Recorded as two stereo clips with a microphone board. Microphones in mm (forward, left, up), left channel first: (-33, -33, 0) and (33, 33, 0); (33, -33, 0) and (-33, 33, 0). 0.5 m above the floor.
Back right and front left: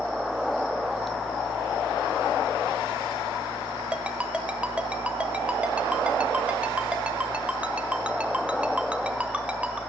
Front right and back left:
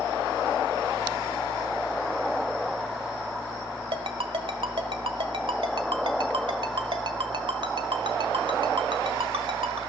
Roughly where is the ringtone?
Behind left.